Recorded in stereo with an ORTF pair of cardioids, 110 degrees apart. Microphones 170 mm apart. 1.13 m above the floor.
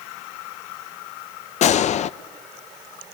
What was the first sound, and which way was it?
A gunshot, 50° left.